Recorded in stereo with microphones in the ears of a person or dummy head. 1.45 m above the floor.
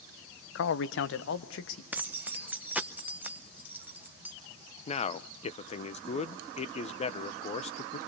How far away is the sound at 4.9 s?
About 1.0 m.